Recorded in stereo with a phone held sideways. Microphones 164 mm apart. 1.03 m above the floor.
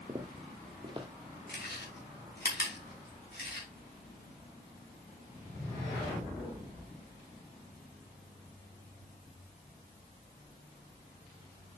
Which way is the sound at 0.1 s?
30° right (ahead or behind).